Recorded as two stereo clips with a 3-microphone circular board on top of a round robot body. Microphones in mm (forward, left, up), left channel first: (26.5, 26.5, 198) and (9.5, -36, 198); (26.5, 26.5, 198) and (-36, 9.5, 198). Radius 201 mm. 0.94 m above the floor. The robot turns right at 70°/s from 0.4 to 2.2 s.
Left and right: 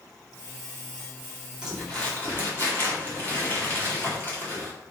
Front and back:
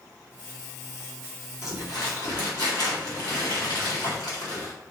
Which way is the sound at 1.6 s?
30° right.